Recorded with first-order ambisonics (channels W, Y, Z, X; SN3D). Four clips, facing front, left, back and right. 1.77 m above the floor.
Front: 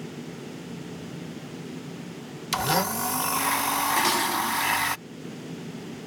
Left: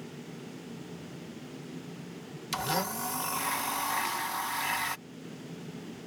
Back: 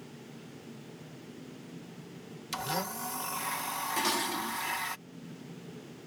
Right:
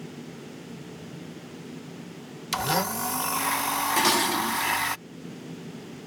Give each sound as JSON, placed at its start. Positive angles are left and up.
{"t": 2.5, "sound": "a blender", "azimuth_deg": -30}
{"t": 4.0, "sound": "dishes clattering", "azimuth_deg": -70}